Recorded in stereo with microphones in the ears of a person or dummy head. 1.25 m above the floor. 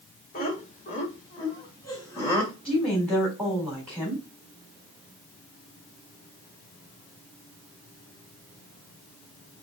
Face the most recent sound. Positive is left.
turn(degrees=15)  # may be behind; listen again after turning